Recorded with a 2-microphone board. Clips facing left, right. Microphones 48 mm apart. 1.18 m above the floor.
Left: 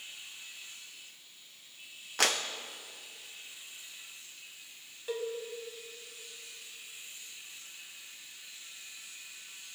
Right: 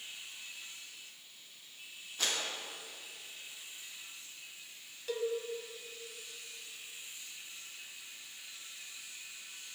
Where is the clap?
70° left (ahead or behind), 1.0 m.